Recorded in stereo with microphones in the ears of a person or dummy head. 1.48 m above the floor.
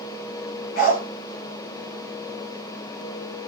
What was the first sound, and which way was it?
A dog barking, 50° left (ahead or behind).